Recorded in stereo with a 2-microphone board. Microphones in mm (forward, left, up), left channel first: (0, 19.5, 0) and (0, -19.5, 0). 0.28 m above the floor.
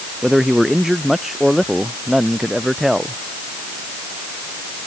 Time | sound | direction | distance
0.2 | a man speaking | 10° right (ahead or behind) | ?